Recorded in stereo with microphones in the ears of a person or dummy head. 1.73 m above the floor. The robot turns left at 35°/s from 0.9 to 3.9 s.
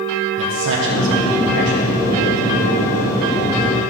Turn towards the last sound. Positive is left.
turn(degrees=180)